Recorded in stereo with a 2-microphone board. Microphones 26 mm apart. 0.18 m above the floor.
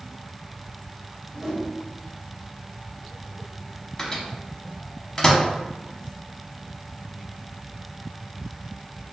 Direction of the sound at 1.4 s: 20° right (ahead or behind).